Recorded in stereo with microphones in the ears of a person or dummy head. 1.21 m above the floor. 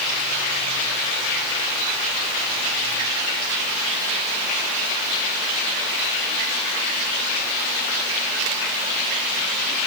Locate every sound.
Only background noise.